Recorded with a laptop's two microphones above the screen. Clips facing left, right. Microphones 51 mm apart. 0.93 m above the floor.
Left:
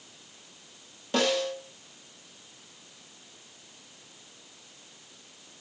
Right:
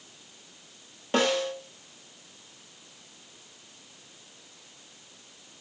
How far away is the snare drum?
About 0.6 m.